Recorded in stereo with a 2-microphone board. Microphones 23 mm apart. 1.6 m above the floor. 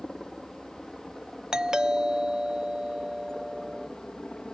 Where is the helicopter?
20° left (ahead or behind); by 4.5 s 35° left (ahead or behind).